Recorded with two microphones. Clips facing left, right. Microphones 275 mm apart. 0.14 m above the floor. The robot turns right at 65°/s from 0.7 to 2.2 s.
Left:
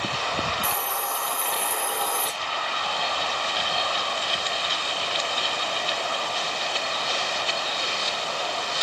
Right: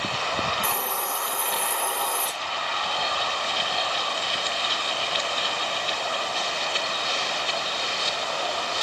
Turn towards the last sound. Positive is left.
turn(degrees=30)